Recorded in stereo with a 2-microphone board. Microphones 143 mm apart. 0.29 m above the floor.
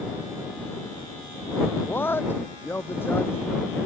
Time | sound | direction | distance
1.9 | a man speaking | 15° left (ahead or behind) | ?